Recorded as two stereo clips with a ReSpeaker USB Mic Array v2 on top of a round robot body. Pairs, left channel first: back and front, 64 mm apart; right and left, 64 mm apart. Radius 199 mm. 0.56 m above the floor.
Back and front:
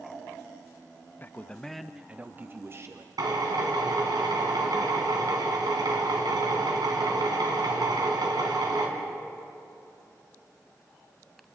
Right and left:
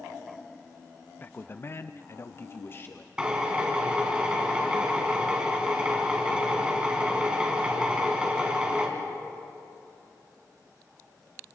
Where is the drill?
15° left, 2.5 m.